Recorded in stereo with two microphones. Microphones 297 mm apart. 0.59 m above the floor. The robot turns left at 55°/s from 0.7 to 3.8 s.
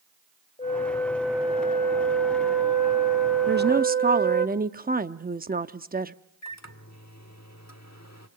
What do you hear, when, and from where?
0.6 s a flute: 25° left, 0.7 m; by 4.5 s 145° right, 0.7 m
3.5 s a woman speaking: 35° right (ahead or behind), 0.7 m; by 6.2 s 30° right (ahead or behind), 0.7 m
6.4 s a microwave: 60° left (ahead or behind), 1.3 m